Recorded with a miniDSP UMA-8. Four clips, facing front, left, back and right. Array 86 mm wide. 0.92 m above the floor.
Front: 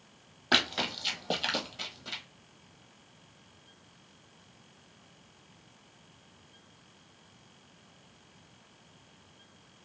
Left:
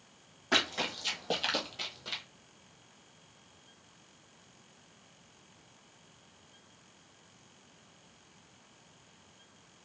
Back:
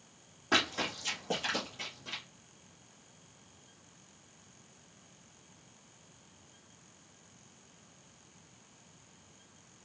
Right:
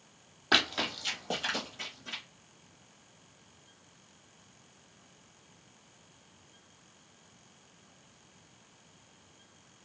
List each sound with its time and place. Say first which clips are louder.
0.5 s running footsteps: right 2 dB, front 2 dB; 45° right, 1.0 m; by 2.2 s 65° left, 1.3 m